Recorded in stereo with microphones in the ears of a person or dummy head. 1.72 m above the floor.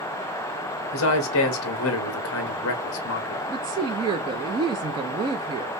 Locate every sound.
0.9 s a man speaking: 70° left (ahead or behind), 1.3 m
3.5 s a woman speaking: 25° right (ahead or behind), 0.5 m